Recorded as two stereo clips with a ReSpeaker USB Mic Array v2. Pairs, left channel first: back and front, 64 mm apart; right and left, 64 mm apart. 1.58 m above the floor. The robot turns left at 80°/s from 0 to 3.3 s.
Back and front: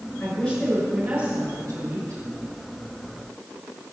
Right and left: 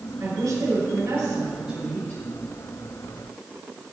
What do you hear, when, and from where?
0.2 s a woman speaking: 125° left, 6.5 m; by 2.2 s 35° right, 6.5 m